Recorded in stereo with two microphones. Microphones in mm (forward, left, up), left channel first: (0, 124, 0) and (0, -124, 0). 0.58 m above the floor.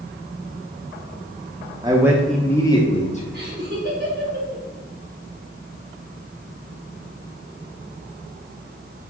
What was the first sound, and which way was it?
A man speaking, 15° right (ahead or behind).